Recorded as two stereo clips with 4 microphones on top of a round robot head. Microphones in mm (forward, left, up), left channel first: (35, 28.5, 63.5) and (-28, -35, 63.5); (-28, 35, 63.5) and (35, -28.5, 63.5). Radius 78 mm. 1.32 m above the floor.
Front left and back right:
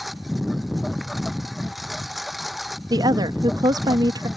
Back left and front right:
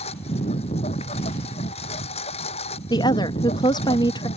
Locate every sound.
0.0 s a lawn mower: 135° left
2.9 s a woman speaking: 175° left